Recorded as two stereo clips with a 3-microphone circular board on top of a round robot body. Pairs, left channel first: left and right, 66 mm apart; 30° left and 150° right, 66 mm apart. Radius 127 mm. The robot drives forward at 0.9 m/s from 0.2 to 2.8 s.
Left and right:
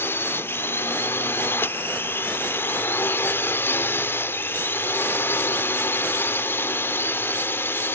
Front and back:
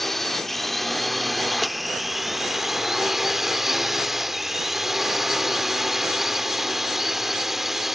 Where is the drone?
115° left; by 8.0 s 125° left.